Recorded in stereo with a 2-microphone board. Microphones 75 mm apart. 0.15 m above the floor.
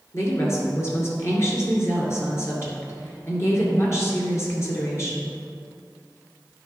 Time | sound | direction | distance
0.1 | a woman speaking | 40° left (ahead or behind) | 1.9 m